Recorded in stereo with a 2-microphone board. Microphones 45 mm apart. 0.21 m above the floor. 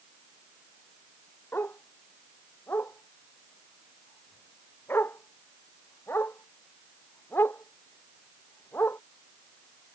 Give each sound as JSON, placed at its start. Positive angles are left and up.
{"t": 1.5, "sound": "a dog barking", "side_deg": 55}